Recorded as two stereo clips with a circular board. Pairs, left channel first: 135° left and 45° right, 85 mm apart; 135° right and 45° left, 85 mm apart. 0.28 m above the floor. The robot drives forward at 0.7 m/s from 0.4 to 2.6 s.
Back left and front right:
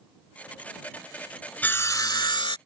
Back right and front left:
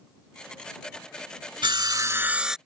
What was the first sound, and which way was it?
Sawing, 65° left.